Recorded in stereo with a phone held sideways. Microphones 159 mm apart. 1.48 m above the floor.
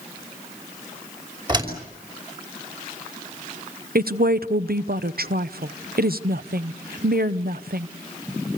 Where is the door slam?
30° right (ahead or behind), 5 m.